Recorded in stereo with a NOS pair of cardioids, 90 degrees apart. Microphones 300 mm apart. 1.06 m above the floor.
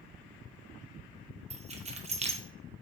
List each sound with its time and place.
1.5 s keys jangling: 20° right, 0.6 m